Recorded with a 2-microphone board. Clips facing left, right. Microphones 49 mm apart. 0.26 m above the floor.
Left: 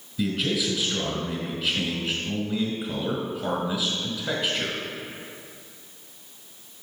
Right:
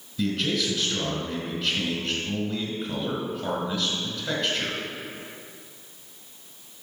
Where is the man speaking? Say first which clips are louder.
Even; 10° left (ahead or behind), 1.6 m.